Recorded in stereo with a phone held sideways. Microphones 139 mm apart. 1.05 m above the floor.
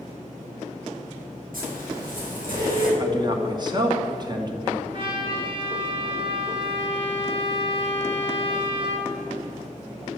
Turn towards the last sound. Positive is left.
turn(degrees=-40)  # may be behind; listen again after turning